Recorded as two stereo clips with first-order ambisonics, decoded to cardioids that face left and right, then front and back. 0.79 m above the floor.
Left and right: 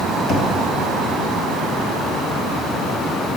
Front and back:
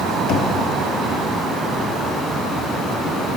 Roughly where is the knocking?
Ahead left.